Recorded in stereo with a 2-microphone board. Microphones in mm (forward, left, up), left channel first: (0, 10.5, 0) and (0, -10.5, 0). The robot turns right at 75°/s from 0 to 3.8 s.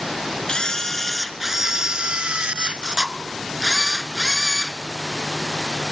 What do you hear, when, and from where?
0.5 s a camera shutter: 125° left, 1.0 m; by 4.8 s 15° left, 1.0 m